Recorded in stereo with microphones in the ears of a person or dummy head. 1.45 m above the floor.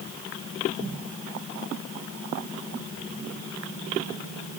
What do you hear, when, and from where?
Only background noise.